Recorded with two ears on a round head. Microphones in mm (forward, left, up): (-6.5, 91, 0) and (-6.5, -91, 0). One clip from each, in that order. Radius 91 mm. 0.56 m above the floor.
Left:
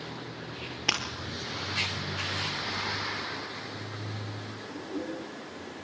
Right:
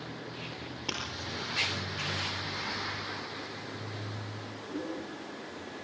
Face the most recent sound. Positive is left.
turn(degrees=45)  # may be behind; listen again after turning